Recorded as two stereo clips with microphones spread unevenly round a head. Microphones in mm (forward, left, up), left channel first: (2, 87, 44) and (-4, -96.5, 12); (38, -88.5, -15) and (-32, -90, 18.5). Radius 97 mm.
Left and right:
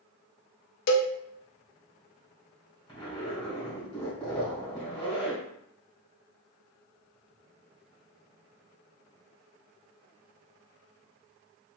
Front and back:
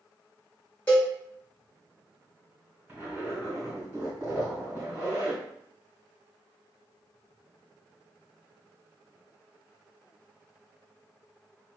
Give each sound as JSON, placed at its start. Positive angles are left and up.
{"t": 0.9, "sound": "a cowbell", "azimuth_deg": 85, "distance_m": 0.5}
{"t": 2.9, "sound": "a zipper", "azimuth_deg": 140, "distance_m": 1.8}